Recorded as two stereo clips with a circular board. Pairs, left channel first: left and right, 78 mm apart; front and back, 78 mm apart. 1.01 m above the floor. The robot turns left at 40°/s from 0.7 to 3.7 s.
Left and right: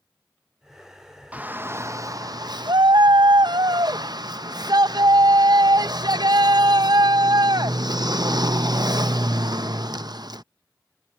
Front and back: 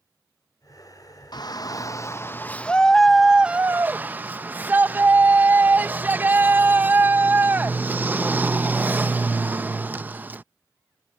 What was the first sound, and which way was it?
A shout, 20° right.